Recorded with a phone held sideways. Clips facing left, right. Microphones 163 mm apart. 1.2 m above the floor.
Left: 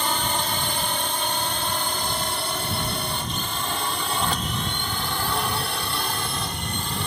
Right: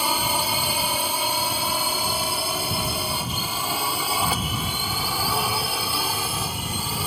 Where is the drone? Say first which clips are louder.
Right 1 dB; 10° right (ahead or behind); by 7.1 s 5° right (ahead or behind).